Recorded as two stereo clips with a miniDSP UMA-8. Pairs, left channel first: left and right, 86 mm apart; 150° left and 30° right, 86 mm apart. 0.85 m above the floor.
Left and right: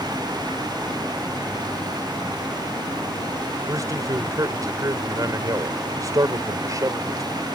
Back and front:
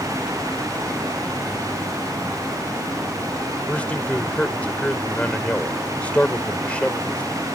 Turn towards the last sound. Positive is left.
turn(degrees=-135)